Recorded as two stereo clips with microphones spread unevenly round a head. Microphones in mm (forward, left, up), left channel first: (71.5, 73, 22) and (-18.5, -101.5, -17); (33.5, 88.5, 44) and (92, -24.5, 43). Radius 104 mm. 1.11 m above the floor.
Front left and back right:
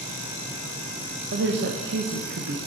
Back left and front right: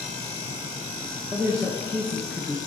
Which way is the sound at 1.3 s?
135° right.